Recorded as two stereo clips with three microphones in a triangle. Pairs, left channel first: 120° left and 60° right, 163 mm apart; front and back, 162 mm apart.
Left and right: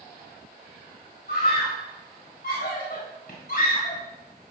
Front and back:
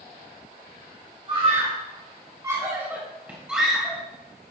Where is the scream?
125° left, 2.5 m; by 4.0 s 90° left, 2.5 m.